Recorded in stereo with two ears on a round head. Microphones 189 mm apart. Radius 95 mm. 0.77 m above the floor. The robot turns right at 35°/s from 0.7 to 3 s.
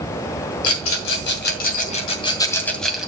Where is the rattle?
80° left, 2 m; by 3.1 s centre (ahead or behind), 2 m.